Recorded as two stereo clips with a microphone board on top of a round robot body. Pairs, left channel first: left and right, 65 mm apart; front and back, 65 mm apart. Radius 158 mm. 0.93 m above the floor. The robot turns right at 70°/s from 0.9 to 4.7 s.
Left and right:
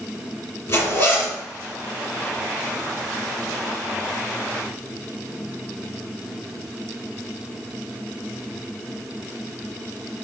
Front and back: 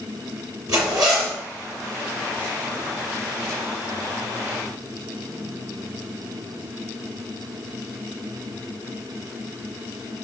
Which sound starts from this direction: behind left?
A zipper, at 0.7 s.